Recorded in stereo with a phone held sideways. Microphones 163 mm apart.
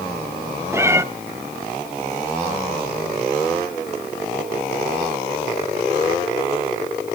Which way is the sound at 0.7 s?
15° right (ahead or behind).